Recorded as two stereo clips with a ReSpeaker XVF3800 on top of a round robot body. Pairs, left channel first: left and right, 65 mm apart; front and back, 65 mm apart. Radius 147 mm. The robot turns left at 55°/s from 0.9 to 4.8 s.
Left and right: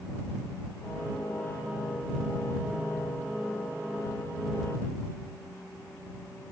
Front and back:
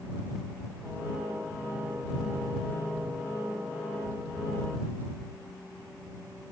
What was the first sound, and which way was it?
Only background noise.